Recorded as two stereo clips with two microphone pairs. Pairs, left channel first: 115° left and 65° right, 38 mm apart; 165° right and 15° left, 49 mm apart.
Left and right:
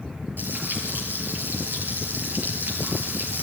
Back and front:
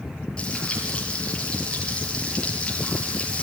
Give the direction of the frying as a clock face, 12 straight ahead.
3 o'clock.